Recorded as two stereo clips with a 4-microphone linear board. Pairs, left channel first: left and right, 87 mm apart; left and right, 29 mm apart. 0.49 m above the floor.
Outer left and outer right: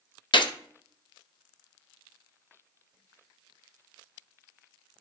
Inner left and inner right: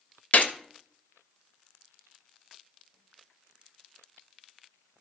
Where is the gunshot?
65° left (ahead or behind), 0.6 m.